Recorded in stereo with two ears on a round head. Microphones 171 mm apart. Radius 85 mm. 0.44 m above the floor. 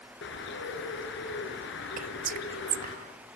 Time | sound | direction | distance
0.2 | a bird | 65° left (ahead or behind) | 5.5 m
2.0 | whispering | 45° right (ahead or behind) | 1.1 m